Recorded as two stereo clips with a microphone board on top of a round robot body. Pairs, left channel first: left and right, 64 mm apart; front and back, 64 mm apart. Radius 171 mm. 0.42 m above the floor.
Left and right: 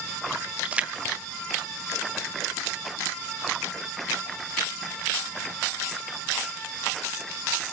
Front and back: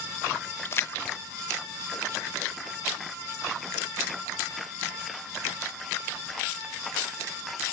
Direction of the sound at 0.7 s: 25° right.